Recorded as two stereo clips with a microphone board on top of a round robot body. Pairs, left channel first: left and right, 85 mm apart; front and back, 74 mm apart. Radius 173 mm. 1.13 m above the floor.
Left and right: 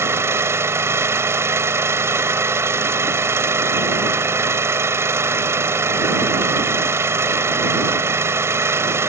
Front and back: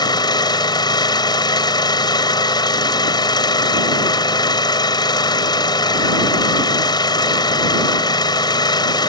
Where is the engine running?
30° right.